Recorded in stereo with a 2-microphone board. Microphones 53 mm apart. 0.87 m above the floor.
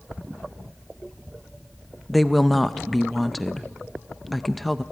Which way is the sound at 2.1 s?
Centre (ahead or behind).